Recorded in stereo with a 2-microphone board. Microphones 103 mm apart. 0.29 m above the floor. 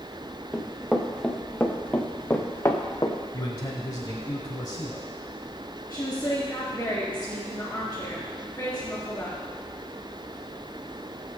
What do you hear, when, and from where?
0.5 s running footsteps: 5° right (ahead or behind), 2 m; by 3.2 s 35° left (ahead or behind), 1.9 m
3.3 s a man speaking: 40° left (ahead or behind), 1.6 m
5.9 s a woman speaking: 20° left (ahead or behind), 3.5 m